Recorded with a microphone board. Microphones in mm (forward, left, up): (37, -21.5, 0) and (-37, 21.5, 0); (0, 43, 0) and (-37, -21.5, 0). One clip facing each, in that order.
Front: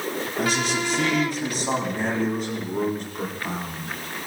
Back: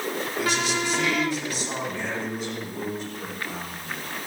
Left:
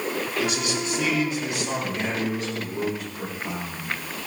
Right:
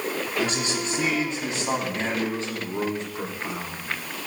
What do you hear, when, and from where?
0.4 s a man speaking: 65° right, 4.5 m; by 3.9 s 60° right, 6.5 m